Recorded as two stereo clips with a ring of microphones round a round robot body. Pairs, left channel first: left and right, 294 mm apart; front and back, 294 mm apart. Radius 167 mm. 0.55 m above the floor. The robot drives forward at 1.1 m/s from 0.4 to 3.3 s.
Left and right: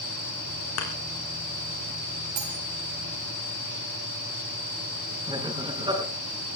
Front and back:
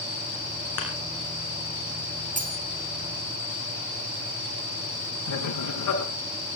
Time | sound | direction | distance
0.8 | a thud | 50° left | 5.5 m
2.4 | cutlery clinking | 115° right | 4 m
5.3 | laughter | 15° right | 6 m